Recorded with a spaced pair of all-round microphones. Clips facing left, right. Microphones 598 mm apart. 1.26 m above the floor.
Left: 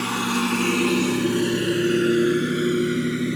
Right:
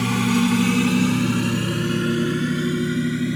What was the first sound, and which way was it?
A lawn mower, 55° right (ahead or behind).